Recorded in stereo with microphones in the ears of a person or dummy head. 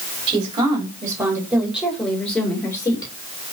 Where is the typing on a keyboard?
I don't hear typing on a keyboard.